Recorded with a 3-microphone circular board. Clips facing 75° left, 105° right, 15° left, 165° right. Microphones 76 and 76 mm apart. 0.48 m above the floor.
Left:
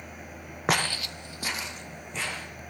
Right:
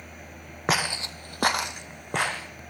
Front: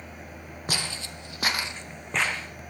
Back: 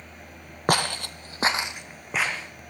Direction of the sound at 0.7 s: 165° left.